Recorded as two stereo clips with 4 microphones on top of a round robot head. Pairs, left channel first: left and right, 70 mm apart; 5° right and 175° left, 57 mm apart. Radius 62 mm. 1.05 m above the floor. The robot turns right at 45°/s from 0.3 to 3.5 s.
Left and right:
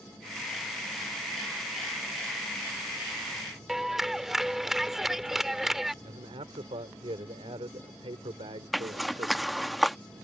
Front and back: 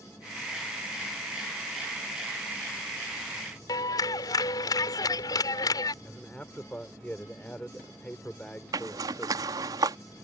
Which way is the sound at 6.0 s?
80° right.